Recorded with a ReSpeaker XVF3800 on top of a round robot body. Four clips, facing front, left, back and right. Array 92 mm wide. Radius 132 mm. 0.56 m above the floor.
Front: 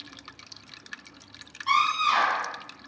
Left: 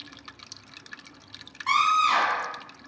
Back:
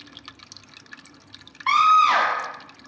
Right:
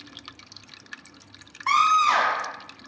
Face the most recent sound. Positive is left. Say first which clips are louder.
# right 3 dB, back 7 dB
turn(degrees=-155)